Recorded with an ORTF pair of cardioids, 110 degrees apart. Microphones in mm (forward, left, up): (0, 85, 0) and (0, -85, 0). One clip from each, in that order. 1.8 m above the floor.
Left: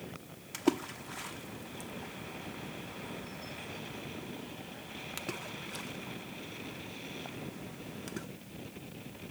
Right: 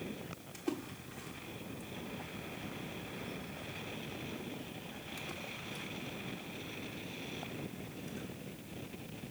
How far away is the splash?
About 0.7 m.